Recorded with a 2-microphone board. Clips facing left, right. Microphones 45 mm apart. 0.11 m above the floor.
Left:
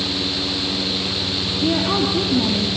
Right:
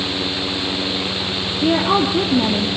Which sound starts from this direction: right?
A woman speaking, at 1.6 s.